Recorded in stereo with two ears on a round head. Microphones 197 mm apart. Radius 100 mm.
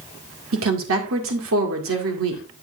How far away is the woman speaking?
About 2.0 m.